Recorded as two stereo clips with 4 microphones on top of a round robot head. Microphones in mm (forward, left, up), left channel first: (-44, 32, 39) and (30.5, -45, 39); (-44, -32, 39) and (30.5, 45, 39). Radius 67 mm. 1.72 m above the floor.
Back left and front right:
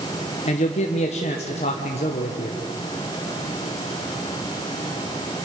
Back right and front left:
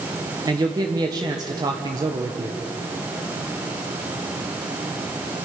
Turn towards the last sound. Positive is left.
turn(degrees=100)